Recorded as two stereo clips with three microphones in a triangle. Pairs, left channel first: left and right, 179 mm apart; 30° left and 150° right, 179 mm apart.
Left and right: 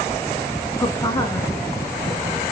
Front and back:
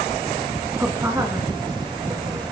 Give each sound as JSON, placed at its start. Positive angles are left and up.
{"t": 0.7, "sound": "a woman speaking", "azimuth_deg": 135, "distance_m": 1.6}